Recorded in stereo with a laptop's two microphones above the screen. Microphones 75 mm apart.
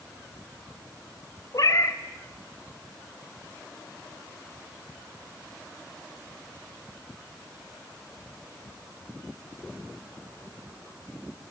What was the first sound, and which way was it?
A cat meowing, 55° left (ahead or behind).